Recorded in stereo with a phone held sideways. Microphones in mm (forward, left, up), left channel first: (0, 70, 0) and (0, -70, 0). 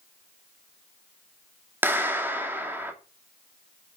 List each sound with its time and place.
1.8 s a clap: 15° right (ahead or behind), 2 m